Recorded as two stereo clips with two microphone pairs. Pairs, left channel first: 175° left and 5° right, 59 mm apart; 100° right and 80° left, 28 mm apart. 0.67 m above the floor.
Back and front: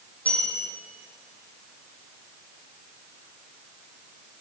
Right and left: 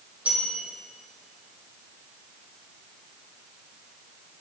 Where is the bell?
115° left, 7 m.